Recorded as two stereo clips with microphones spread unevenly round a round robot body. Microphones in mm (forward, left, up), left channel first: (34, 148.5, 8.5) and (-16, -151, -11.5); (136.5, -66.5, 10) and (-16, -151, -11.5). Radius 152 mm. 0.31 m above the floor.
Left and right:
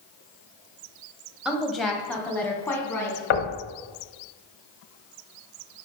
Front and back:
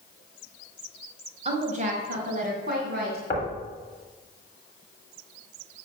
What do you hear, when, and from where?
1.4 s a woman speaking: straight behind, 1.2 m; by 3.2 s 165° left, 2.5 m
3.3 s knocking: 100° left, 1.4 m